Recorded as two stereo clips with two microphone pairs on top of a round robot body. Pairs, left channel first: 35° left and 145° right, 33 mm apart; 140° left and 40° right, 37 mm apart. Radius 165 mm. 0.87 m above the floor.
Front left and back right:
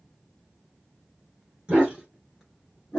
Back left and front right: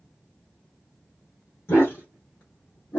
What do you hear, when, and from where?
1.7 s a dog barking: 155° left, 1.1 m; by 3.0 s 105° left, 0.8 m